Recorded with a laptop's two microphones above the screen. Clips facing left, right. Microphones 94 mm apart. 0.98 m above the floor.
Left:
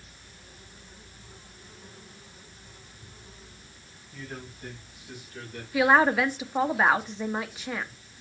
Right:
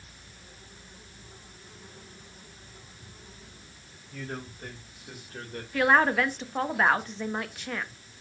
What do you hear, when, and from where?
4.1 s a man speaking: 55° right (ahead or behind), 5 m; by 5.6 s 40° right (ahead or behind), 3.5 m
5.7 s a woman speaking: 5° left (ahead or behind), 1.2 m